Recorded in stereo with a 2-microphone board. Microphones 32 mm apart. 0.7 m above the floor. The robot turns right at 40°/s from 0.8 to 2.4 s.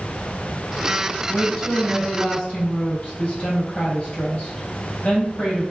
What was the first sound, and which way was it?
A woman speaking, straight ahead.